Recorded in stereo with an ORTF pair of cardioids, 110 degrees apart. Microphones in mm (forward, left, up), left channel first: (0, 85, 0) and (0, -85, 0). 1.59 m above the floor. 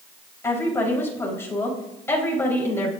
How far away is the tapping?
I don't hear tapping.